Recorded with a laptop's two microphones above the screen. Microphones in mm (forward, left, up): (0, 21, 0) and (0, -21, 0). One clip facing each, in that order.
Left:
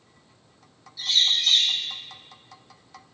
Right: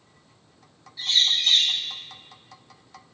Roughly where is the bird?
Right.